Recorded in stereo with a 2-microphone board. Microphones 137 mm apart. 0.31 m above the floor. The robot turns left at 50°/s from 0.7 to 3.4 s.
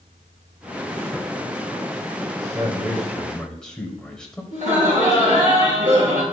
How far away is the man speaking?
About 1.7 m.